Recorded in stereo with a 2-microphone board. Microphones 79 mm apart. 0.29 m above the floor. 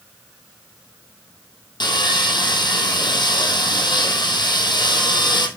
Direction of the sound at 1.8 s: 70° left (ahead or behind).